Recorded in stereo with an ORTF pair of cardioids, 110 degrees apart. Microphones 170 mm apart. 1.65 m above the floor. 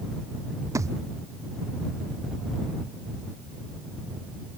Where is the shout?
I don't hear a shout.